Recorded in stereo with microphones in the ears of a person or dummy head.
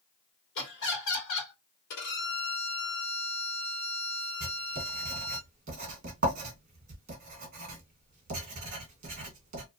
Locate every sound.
0.6 s laughter: 65° left (ahead or behind), 1.3 m
1.9 s a violin: 60° left (ahead or behind), 1.0 m
4.4 s writing: 45° right (ahead or behind), 1.1 m